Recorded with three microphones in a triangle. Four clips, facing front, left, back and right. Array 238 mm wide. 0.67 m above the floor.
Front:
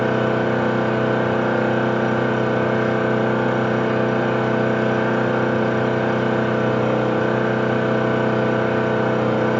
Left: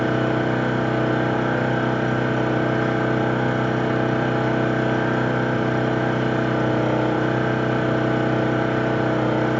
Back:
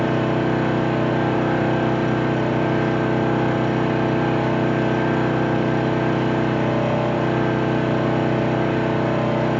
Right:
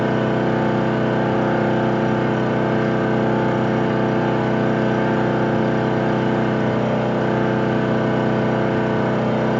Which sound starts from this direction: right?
An engine running, at 0.0 s.